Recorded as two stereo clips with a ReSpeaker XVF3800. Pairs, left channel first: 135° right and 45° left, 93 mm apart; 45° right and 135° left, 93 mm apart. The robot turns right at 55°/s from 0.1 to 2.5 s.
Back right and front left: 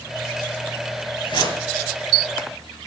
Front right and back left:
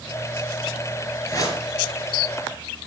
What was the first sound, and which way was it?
A whoosh, 110° right.